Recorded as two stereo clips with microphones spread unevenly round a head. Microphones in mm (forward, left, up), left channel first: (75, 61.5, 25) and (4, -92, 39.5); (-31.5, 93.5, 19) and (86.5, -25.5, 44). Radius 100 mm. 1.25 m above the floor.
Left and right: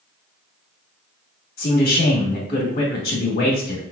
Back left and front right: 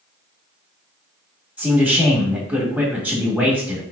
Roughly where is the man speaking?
Ahead left.